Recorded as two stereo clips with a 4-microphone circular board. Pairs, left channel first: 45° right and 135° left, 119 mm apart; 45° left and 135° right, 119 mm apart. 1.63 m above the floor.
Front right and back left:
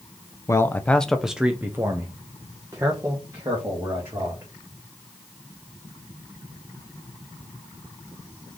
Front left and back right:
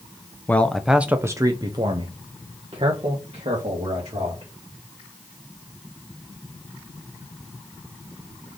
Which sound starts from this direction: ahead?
A man speaking, at 0.5 s.